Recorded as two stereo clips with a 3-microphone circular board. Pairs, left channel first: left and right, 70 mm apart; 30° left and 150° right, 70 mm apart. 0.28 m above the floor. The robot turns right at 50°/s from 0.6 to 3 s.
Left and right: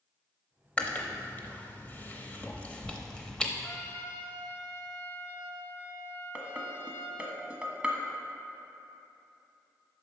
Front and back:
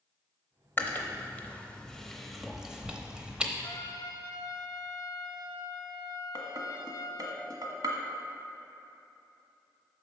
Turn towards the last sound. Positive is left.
turn(degrees=-160)